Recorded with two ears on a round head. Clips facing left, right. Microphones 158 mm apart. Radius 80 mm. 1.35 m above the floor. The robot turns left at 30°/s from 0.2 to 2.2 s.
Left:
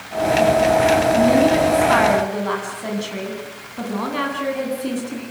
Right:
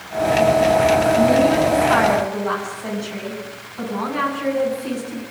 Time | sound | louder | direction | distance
1.1 | a woman speaking | even | 75° left | 9.5 m